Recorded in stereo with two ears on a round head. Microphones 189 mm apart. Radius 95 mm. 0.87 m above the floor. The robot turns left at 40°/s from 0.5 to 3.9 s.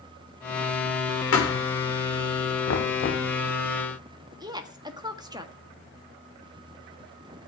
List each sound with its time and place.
1.3 s a thud: 75° left (ahead or behind), 9 m; by 1.6 s 85° left, 9 m
2.7 s knocking: 60° left (ahead or behind), 1.4 m; by 3.3 s 35° left (ahead or behind), 1.4 m
4.4 s a woman speaking: 20° right (ahead or behind), 1.5 m